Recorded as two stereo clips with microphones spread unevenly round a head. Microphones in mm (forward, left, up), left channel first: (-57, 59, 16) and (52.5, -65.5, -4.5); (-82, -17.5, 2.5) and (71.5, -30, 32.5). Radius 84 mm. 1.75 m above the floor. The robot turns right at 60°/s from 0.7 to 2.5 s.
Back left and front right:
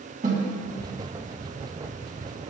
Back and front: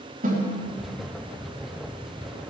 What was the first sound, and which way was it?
A snare drum, 5° right.